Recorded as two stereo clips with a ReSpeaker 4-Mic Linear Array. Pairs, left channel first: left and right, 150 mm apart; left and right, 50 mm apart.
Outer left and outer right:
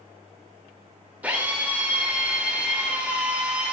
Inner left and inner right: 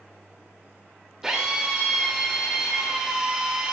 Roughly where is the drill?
Centre.